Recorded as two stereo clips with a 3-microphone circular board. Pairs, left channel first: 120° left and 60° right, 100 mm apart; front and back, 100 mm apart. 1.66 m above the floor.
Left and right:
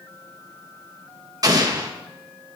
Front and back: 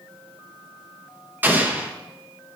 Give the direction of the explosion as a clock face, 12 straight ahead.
4 o'clock.